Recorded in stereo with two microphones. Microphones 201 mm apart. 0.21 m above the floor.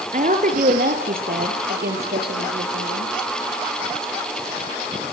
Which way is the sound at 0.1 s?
40° right (ahead or behind).